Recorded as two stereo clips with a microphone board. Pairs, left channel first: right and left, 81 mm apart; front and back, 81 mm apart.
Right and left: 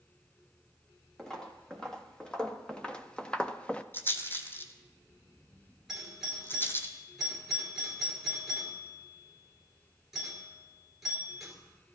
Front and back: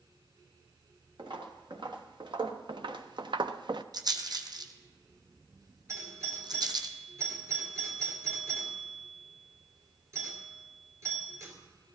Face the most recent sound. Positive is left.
turn(degrees=175)